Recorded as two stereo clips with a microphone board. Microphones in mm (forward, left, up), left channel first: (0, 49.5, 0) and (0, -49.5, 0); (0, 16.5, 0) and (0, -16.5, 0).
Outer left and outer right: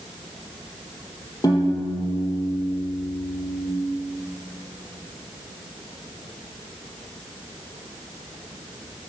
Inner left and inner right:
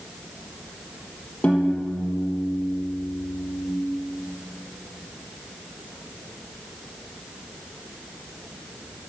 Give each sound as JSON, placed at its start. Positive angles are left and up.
{"t": 1.4, "sound": "a piano", "side_deg": 40, "distance_m": 3.0}